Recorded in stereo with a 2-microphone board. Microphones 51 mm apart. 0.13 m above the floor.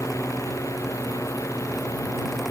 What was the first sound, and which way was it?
A drone, 80° left.